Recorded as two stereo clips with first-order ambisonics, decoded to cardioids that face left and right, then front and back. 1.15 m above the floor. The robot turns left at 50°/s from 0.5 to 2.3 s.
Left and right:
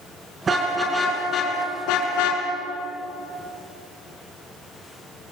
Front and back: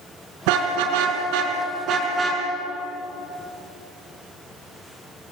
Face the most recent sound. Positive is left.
turn(degrees=105)